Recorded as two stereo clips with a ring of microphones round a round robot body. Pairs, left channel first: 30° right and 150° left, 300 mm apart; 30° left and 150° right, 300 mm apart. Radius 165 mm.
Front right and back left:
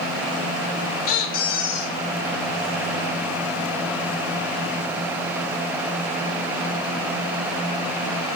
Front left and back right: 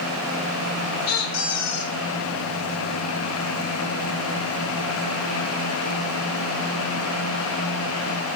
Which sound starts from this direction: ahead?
A squeak, at 1.1 s.